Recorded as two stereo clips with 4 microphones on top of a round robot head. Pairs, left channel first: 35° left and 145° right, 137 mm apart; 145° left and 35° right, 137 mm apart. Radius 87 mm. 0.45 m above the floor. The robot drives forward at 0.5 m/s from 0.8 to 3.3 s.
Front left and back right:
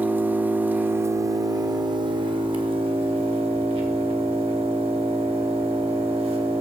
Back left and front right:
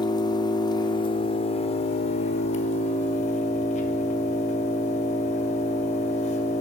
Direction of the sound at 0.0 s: 150° left.